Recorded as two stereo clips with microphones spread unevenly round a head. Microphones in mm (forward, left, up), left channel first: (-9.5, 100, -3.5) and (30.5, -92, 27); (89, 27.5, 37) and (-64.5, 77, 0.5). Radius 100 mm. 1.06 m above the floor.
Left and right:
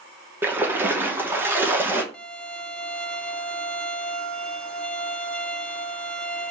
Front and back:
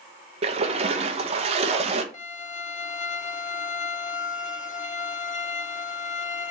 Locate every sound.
0.4 s a splash: 165° right, 1.1 m
2.1 s a violin: 10° left, 0.8 m